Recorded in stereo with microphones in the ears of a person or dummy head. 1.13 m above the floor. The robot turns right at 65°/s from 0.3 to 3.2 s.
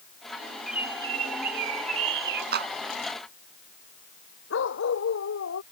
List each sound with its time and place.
0.7 s a bird: straight behind; by 2.4 s 65° right
2.5 s a clap: 50° right (ahead or behind); by 2.7 s 65° right (ahead or behind)
4.5 s a dog barking: 70° left (ahead or behind)